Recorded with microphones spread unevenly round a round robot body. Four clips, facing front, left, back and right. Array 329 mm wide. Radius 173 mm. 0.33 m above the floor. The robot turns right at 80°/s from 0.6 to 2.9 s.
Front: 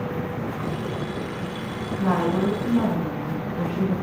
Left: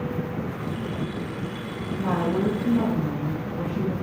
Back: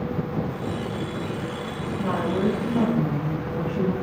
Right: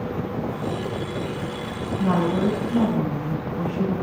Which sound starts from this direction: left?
A woman speaking, at 2.0 s.